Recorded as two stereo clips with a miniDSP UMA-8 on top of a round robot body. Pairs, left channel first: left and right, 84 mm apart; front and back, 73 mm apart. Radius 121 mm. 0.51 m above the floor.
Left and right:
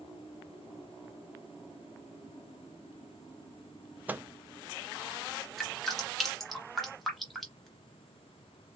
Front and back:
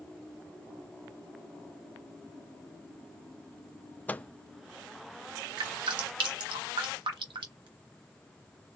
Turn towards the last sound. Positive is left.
turn(degrees=180)